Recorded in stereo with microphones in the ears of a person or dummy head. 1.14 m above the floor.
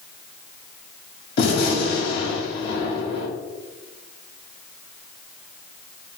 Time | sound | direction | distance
1.4 | a gunshot | 65° left (ahead or behind) | 1.8 m